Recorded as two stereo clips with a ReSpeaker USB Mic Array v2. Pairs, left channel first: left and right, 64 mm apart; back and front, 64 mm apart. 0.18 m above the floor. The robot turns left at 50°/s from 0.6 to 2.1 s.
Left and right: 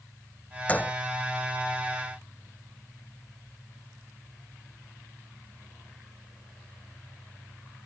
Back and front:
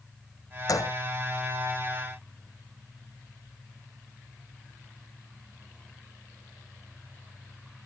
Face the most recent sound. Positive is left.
turn(degrees=85)